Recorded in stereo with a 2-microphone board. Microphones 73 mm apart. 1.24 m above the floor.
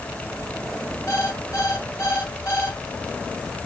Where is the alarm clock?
45° left (ahead or behind), 4 m.